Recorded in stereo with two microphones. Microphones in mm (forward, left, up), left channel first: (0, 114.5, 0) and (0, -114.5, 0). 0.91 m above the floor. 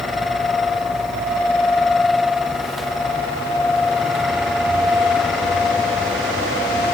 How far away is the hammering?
No hammering in this recording.